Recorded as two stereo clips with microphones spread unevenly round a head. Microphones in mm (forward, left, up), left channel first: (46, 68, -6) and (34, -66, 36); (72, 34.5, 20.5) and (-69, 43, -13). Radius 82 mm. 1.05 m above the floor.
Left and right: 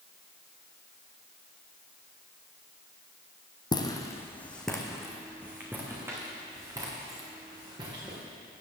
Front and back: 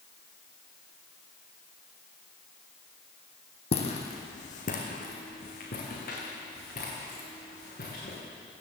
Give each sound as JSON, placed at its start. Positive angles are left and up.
{"t": 3.7, "sound": "footsteps", "azimuth_deg": 20, "distance_m": 2.0}